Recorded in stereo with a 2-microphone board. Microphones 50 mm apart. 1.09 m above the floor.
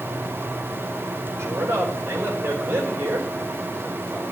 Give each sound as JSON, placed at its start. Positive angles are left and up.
{"t": 1.4, "sound": "a man speaking", "side_deg": -60, "distance_m": 4.5}